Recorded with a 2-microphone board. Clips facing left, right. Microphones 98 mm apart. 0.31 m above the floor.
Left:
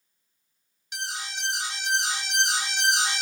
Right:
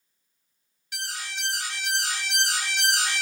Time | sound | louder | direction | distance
0.9 | an alarm | left 1 dB | 20° left (ahead or behind) | 0.6 m